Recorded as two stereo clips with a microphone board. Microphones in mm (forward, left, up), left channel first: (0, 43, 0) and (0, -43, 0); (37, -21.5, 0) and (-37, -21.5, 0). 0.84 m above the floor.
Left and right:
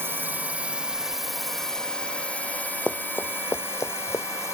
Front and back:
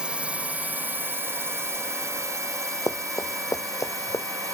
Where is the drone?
120° right; by 4.5 s 145° left.